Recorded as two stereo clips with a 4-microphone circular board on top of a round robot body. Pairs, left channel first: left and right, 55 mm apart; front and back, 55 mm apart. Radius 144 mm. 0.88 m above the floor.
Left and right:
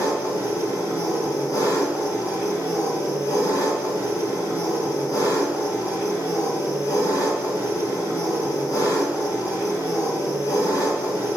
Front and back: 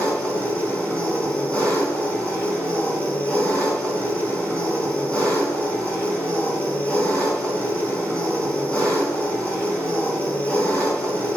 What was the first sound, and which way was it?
An engine running, 70° left.